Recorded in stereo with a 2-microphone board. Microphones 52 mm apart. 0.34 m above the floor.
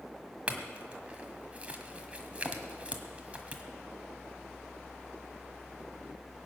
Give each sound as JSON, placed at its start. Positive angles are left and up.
{"t": 0.5, "sound": "a clink", "side_deg": -25, "distance_m": 1.5}